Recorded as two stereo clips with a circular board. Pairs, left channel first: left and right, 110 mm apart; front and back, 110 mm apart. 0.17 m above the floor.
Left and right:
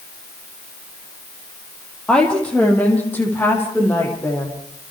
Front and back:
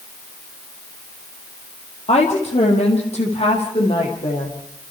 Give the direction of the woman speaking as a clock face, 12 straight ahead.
12 o'clock.